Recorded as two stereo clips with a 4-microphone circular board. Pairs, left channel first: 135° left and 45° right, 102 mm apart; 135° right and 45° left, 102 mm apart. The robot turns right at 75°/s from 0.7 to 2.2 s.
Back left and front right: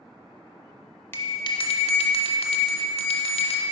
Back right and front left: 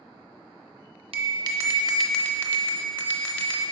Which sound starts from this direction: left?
A bell, at 1.1 s.